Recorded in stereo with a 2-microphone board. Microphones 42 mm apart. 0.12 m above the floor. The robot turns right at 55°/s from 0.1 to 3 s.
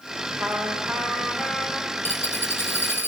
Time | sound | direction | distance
0.4 | a trumpet | 75° right | 5 m
2.0 | a dropped coin | 45° left | 2.5 m